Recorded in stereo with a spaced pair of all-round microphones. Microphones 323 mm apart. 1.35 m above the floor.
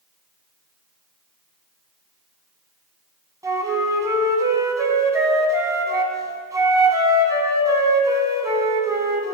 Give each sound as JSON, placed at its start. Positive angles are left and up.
{"t": 3.4, "sound": "a flute", "side_deg": -10, "distance_m": 2.0}